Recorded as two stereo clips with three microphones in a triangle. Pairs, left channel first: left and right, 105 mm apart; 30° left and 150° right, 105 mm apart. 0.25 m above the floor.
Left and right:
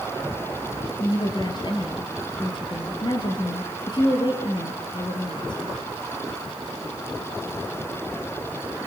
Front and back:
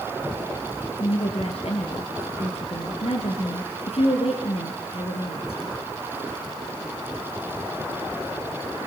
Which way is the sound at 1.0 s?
45° left.